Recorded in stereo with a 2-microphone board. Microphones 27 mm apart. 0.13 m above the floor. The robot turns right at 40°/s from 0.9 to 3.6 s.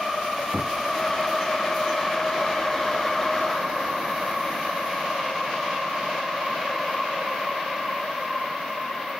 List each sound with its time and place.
0.5 s knocking: 15° right (ahead or behind)